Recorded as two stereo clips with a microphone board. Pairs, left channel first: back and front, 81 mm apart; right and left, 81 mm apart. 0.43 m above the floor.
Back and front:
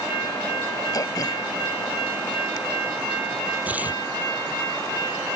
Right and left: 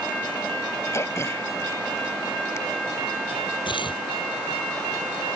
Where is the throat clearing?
145° right.